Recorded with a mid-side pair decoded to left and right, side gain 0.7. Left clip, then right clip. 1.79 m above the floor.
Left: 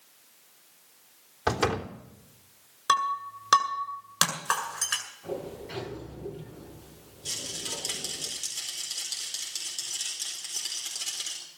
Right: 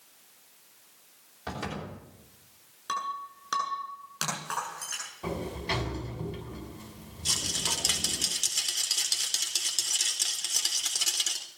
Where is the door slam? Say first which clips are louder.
Left 10 dB; 45° left, 3.5 m.